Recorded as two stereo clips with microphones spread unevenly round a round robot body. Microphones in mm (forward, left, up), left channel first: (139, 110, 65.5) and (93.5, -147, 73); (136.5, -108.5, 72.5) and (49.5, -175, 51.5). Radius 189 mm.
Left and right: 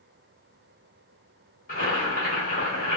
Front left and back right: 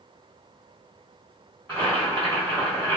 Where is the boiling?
125° left, 1.7 m.